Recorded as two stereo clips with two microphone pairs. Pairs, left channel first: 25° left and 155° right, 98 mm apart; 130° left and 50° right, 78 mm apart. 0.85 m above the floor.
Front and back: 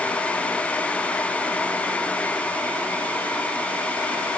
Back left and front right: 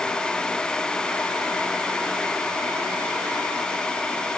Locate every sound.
Only background noise.